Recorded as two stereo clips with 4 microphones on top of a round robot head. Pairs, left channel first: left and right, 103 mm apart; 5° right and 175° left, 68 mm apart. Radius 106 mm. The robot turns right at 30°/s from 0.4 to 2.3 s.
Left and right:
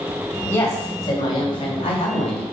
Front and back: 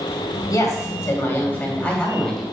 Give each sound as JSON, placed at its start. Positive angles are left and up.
{"t": 0.5, "sound": "a woman speaking", "azimuth_deg": 30, "distance_m": 2.5}